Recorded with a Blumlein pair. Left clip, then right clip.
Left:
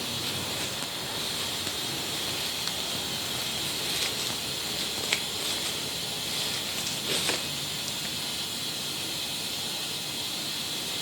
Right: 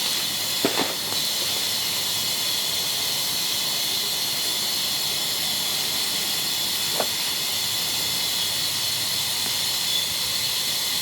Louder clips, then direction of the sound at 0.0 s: Right 7 dB; 35° right.